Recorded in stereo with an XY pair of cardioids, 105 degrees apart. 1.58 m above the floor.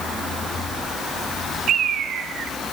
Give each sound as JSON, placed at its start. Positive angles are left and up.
{"t": 1.7, "sound": "a bird", "azimuth_deg": -65, "distance_m": 2.0}